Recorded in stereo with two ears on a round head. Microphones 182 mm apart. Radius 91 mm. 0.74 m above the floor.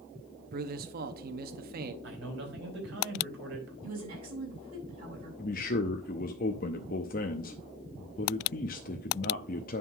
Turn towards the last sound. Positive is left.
turn(degrees=45)  # may be behind; listen again after turning